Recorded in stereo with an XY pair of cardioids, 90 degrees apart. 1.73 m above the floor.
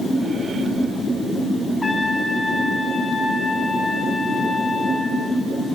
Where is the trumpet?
35° left, 1.2 m.